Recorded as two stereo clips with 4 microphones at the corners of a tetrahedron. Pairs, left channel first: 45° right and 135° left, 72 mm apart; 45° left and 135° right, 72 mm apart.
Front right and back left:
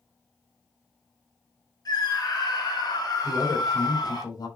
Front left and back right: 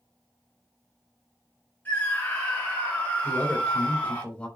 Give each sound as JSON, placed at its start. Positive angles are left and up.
{"t": 1.9, "sound": "a scream", "azimuth_deg": -20, "distance_m": 7.0}
{"t": 3.2, "sound": "a woman speaking", "azimuth_deg": -30, "distance_m": 3.5}